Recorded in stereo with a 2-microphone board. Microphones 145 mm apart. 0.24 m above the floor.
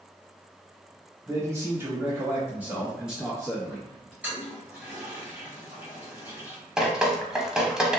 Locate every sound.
1.3 s a man speaking: 20° right (ahead or behind), 1.1 m; by 4.1 s centre (ahead or behind), 1.4 m
4.2 s a toilet flushing: 10° right (ahead or behind), 1.8 m
6.8 s dripping: 5° right (ahead or behind), 0.5 m